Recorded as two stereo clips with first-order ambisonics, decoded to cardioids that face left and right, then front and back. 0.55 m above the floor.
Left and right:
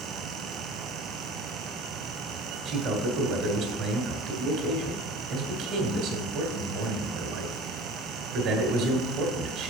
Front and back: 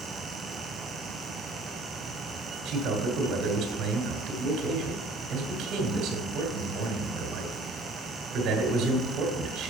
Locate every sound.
2.6 s a man speaking: 130° right, 1.7 m